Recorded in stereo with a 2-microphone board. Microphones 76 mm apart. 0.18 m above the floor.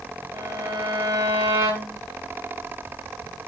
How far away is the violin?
About 9 m.